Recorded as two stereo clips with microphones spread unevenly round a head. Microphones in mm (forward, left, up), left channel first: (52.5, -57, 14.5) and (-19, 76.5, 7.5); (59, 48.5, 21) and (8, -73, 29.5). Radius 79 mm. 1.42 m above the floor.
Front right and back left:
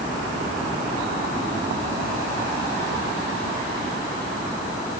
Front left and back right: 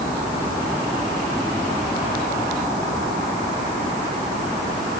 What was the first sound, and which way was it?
Only background noise.